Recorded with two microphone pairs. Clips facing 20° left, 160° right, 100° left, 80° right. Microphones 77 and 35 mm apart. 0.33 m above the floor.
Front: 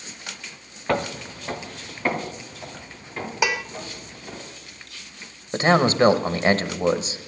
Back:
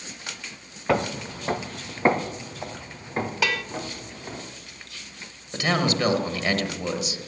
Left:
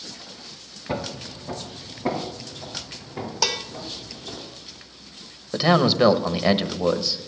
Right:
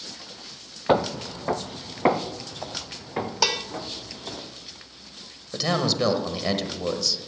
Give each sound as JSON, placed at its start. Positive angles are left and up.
{"t": 0.9, "sound": "footsteps", "azimuth_deg": -70, "distance_m": 0.7}
{"t": 3.4, "sound": "dishes clattering", "azimuth_deg": -20, "distance_m": 0.5}
{"t": 5.5, "sound": "a man speaking", "azimuth_deg": 50, "distance_m": 1.1}